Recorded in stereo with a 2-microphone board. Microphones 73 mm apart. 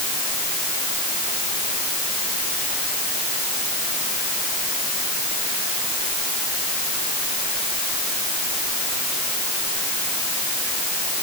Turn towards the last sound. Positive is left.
No sound to turn to.